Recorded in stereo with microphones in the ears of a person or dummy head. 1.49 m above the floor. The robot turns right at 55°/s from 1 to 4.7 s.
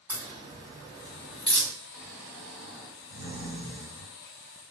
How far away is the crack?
About 1.9 m.